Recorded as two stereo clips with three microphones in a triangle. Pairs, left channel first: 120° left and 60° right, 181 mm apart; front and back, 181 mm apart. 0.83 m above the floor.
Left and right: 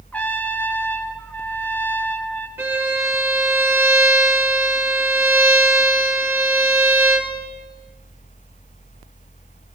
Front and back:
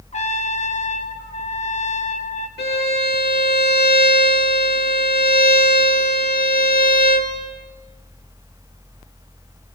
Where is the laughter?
I don't hear laughter.